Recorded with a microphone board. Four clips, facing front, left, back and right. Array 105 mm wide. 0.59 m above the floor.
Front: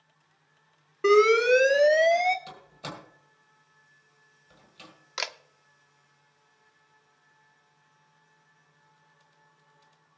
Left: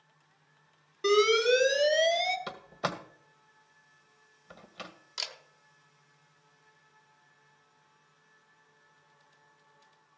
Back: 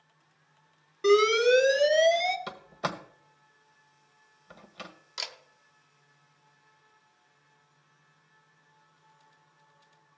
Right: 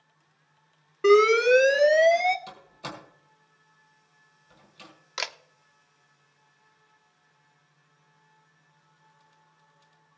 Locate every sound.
1.0 s an alarm: 50° right, 1.4 m
2.5 s a door slam: 135° left, 1.8 m
5.2 s a camera shutter: 50° right, 0.8 m